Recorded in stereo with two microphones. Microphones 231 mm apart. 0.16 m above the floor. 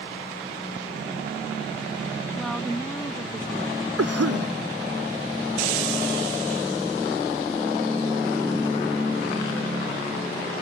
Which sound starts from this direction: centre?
A woman speaking, at 2.4 s.